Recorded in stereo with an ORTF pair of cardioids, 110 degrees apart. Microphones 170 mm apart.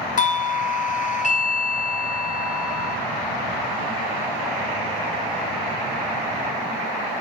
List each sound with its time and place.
0.2 s a doorbell: 50° left, 0.8 m